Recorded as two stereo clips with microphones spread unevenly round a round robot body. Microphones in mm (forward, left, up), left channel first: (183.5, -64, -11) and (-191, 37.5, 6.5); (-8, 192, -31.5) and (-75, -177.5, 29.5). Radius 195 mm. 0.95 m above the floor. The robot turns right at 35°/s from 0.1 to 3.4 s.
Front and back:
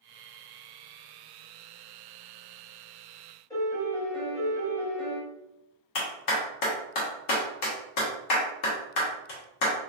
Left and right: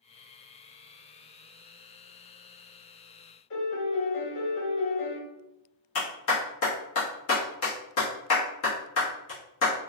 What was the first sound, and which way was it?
A piano, 65° left.